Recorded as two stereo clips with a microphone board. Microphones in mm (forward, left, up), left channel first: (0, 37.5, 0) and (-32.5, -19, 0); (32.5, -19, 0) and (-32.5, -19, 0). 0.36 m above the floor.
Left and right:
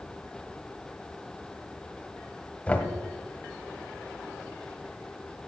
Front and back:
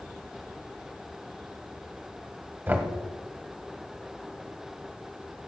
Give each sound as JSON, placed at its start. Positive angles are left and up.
{"t": 2.7, "sound": "knocking", "azimuth_deg": 125, "distance_m": 1.7}